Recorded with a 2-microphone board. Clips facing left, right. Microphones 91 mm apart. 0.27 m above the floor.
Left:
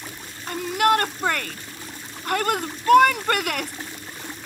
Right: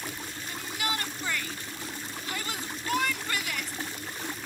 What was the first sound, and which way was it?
A shout, 65° left (ahead or behind).